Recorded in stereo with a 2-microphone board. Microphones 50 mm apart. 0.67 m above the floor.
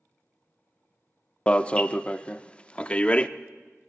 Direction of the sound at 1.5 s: 25° left (ahead or behind).